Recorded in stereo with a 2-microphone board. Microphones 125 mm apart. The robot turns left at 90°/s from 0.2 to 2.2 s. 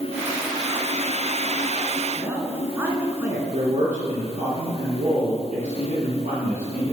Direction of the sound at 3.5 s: 65° right (ahead or behind).